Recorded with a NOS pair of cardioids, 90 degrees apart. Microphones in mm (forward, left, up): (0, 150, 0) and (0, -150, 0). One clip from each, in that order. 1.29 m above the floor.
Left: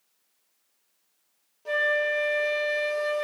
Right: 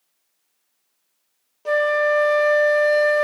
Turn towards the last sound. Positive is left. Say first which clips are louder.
# right 6 dB
turn(degrees=-45)